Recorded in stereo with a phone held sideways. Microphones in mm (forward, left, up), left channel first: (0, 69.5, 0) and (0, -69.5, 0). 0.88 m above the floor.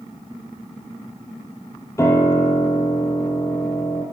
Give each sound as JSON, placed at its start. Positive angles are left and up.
{"t": 2.0, "sound": "a piano", "side_deg": 20, "distance_m": 4.0}